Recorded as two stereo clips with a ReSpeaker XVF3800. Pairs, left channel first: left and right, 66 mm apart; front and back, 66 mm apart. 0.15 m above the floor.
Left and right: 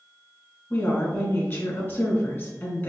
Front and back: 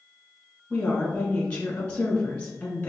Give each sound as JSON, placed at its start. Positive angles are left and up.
{"t": 0.7, "sound": "a woman speaking", "azimuth_deg": 65, "distance_m": 1.9}